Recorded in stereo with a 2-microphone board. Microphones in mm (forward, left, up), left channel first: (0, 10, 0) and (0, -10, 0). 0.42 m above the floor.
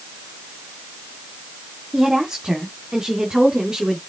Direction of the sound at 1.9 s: 30° right (ahead or behind).